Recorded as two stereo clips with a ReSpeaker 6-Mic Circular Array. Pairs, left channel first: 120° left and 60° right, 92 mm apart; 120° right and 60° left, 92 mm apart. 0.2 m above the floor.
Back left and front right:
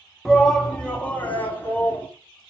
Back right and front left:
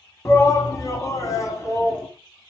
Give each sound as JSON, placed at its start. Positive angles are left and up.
{"t": 0.2, "sound": "a shout", "azimuth_deg": -155, "distance_m": 1.5}